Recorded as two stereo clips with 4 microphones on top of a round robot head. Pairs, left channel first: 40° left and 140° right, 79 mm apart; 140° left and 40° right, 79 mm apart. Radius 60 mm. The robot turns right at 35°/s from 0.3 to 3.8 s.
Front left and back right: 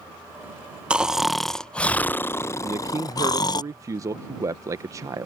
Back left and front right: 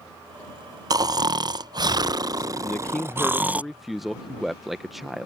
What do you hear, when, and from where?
0.9 s snoring: 65° right; by 3.6 s 30° left
2.6 s a man speaking: 170° right; by 5.3 s 125° right